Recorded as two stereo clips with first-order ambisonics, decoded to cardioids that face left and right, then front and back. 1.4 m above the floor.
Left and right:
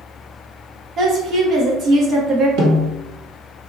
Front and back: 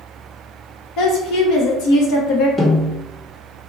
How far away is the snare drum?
About 1.3 m.